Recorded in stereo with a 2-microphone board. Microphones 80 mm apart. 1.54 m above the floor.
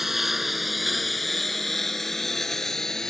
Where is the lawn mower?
5° right (ahead or behind); by 3.1 s 5° left (ahead or behind).